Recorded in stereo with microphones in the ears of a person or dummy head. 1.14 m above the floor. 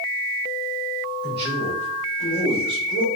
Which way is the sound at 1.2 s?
35° right (ahead or behind).